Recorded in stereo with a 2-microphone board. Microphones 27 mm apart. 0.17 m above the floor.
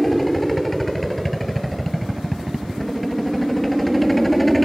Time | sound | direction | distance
0.0 | a helicopter | 5° left (ahead or behind) | ?